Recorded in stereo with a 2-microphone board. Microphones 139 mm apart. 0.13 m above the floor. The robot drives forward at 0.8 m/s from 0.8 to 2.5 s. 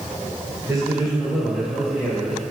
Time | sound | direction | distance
0.7 | a man speaking | 5° right (ahead or behind) | 2 m